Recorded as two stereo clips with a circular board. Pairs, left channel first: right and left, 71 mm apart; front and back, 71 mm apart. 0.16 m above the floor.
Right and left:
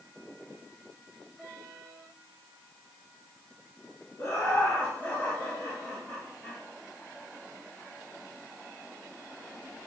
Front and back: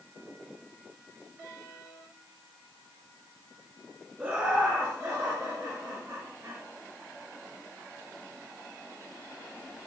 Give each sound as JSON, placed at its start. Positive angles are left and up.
{"t": 4.2, "sound": "laughter", "azimuth_deg": -120, "distance_m": 1.8}